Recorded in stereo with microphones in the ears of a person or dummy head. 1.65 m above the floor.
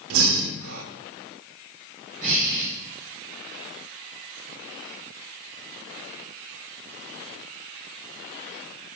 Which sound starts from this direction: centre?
Breathing, at 2.2 s.